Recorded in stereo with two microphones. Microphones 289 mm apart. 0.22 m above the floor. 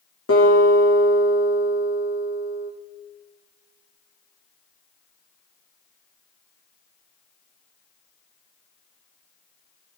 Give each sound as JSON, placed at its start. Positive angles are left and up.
{"t": 0.3, "sound": "a guitar", "side_deg": 50, "distance_m": 6.5}